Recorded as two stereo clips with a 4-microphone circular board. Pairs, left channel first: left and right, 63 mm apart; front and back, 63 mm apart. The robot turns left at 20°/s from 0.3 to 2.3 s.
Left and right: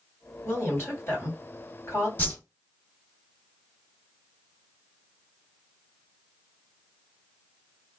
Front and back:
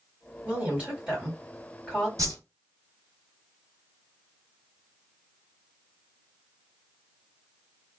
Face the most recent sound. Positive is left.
turn(degrees=145)